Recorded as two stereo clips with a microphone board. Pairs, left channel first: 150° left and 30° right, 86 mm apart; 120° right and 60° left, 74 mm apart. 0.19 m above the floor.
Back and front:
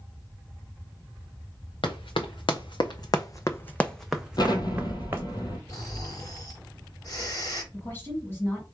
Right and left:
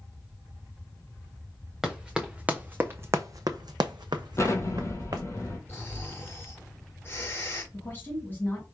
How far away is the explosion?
About 1.2 m.